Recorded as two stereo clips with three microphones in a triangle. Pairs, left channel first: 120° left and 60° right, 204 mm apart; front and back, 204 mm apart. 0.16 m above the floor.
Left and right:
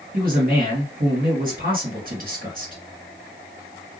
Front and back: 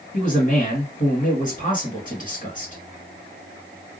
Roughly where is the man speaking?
Ahead right.